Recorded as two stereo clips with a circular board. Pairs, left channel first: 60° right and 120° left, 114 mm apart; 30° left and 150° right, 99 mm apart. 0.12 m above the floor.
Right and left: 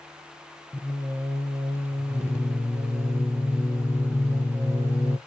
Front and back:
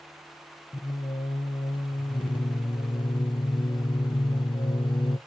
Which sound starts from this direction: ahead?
Singing, at 0.7 s.